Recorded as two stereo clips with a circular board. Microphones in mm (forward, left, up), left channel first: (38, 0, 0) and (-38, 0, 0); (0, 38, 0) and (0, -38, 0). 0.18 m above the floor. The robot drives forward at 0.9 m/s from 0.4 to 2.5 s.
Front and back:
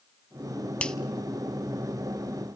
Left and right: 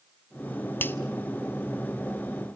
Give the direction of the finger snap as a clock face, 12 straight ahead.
10 o'clock.